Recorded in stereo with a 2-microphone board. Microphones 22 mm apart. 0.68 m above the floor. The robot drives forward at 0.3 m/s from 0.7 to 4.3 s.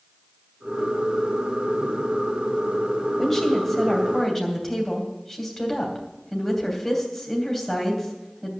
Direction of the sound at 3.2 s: 10° left (ahead or behind).